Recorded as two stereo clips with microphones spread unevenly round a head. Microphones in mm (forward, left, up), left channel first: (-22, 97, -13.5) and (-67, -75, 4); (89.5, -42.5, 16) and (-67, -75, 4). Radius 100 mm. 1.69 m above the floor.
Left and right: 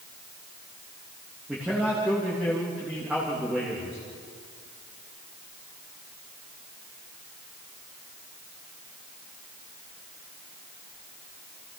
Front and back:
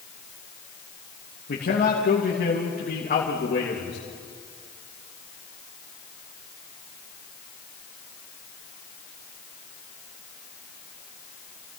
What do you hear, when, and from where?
1.5 s a man speaking: 20° right, 3 m